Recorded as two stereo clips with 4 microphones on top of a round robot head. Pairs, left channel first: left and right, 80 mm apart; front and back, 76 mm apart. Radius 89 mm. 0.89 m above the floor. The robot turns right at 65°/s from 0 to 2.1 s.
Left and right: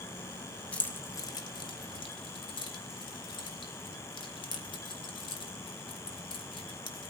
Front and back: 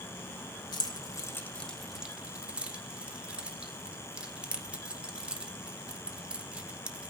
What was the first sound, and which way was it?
Keys jangling, 15° left.